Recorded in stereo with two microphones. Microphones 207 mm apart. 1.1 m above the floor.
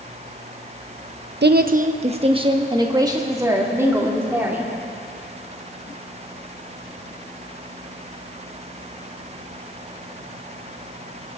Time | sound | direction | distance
1.4 | a woman speaking | 55° right (ahead or behind) | 0.6 m